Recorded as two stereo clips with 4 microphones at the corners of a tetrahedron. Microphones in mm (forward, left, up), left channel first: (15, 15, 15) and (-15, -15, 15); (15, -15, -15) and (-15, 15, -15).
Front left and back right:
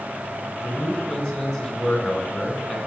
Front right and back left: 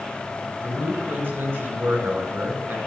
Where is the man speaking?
125° left, 3 m.